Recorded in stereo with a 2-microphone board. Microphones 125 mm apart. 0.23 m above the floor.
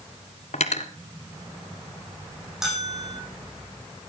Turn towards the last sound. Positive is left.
turn(degrees=-5)  # may be behind; listen again after turning